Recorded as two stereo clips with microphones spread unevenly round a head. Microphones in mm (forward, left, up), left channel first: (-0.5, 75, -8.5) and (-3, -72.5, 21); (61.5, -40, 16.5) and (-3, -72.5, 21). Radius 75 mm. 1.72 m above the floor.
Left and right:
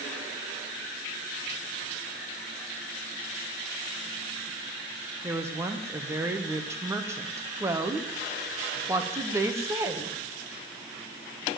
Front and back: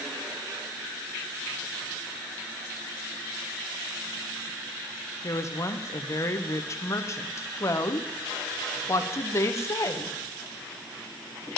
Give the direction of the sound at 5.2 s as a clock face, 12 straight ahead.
1 o'clock.